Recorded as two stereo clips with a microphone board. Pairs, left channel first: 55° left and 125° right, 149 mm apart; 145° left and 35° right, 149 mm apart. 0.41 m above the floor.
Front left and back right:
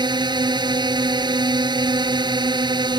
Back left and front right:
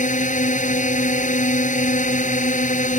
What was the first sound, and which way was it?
A drone, 175° left.